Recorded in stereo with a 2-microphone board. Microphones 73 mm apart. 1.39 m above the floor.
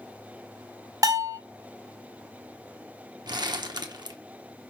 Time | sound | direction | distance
1.0 | a bell | 55° right (ahead or behind) | 1.0 m
3.3 | crumpling | 75° right (ahead or behind) | 1.0 m